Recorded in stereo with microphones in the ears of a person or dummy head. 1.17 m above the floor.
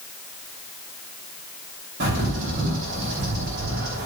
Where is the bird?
60° right (ahead or behind), 3 m.